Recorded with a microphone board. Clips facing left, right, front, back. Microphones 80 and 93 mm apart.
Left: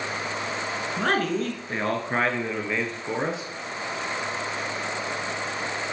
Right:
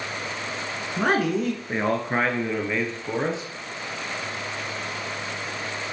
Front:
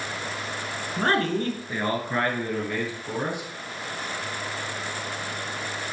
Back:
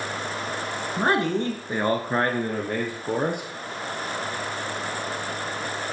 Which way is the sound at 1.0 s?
130° right.